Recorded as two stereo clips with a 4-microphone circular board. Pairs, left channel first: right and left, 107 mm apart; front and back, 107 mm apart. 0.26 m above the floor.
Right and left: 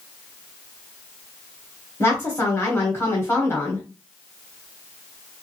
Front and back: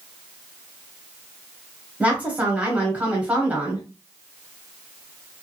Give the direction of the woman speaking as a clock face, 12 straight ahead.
4 o'clock.